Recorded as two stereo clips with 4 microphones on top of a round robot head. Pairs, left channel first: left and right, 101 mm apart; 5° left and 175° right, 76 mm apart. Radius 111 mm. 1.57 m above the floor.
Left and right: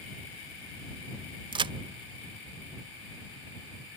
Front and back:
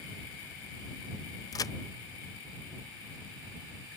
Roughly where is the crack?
Ahead right.